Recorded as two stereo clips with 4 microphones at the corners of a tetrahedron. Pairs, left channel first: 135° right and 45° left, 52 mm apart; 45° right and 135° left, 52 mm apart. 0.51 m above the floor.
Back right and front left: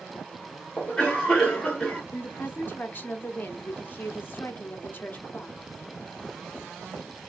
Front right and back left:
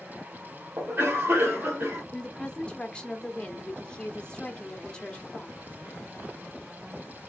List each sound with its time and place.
0.8 s a cough: 155° left, 1.5 m
2.1 s a woman speaking: 105° right, 0.9 m